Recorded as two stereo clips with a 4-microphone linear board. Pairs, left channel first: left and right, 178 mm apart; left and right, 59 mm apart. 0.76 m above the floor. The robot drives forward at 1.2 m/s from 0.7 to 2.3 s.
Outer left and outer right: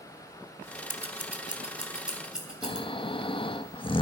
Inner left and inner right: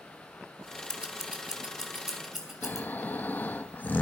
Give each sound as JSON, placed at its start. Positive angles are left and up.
{"t": 0.9, "sound": "scissors", "side_deg": -15, "distance_m": 0.8}
{"t": 2.6, "sound": "snoring", "side_deg": 30, "distance_m": 0.5}